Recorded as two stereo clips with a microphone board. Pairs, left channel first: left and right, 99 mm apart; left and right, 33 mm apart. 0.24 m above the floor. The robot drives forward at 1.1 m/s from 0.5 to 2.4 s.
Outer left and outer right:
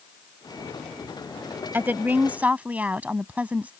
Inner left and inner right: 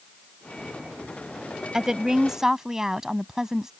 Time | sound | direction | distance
1.7 | a woman speaking | 20° right (ahead or behind) | ?